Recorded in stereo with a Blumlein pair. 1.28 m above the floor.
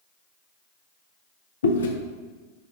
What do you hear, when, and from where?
1.6 s chewing: 65° left, 0.5 m